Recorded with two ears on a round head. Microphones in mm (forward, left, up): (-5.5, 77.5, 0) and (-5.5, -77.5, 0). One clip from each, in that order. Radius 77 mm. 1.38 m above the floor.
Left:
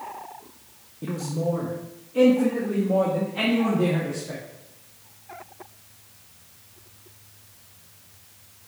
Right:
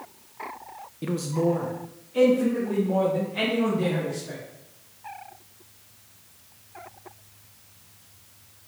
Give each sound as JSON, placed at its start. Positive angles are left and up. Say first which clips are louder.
{"t": 1.0, "sound": "a man speaking", "louder": "right 3 dB", "side_deg": -60, "distance_m": 0.6}